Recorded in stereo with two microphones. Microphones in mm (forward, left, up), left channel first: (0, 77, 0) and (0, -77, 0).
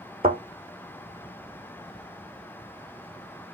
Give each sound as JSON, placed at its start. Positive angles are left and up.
{"t": 0.2, "sound": "a thud", "side_deg": -75, "distance_m": 2.0}